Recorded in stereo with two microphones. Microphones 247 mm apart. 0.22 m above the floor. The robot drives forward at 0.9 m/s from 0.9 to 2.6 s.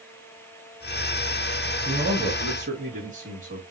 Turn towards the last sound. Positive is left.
turn(degrees=-30)  # may be behind; listen again after turning